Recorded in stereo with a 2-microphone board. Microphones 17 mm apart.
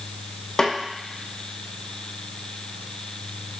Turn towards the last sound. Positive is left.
turn(degrees=30)  # may be behind; listen again after turning